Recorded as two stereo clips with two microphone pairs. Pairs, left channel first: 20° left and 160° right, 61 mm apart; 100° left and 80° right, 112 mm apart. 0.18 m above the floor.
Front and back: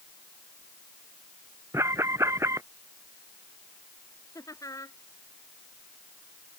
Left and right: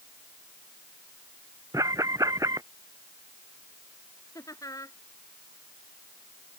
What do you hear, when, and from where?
1.7 s an alarm: 135° right
4.3 s laughter: 45° left